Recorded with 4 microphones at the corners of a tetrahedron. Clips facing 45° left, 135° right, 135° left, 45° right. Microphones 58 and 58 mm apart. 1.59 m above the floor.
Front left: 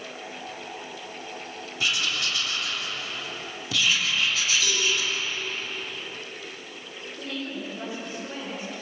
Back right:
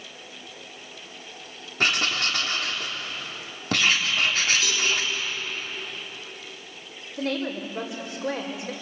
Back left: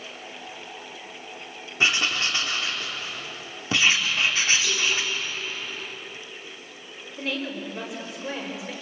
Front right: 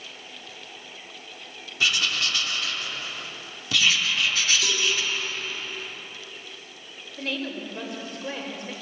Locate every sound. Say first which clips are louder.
1.8 s writing: back right 3 dB, back left 2 dB; 165° right, 3.5 m
4.6 s a cowbell: even, even; 55° right, 7.5 m
7.2 s a woman speaking: back right 6 dB, back left 1 dB; 135° right, 5 m